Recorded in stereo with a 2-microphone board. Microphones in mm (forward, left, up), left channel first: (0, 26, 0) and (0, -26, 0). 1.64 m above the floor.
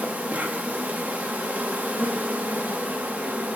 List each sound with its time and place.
0.0 s an insect: 30° right (ahead or behind), 0.9 m